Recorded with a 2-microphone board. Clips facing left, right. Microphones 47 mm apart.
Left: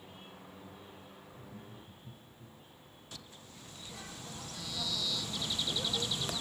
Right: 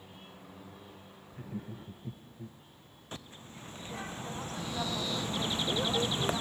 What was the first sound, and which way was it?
Laughter, 70° right (ahead or behind).